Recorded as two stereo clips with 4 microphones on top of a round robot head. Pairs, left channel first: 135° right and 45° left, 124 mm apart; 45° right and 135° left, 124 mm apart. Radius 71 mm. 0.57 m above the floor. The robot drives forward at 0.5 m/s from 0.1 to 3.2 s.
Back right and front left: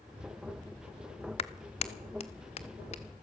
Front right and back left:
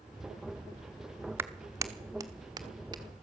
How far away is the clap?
About 1.0 m.